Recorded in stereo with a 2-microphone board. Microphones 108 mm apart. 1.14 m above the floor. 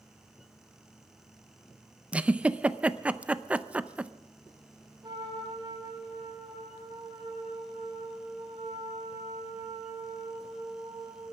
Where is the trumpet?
40° right (ahead or behind), 5 m.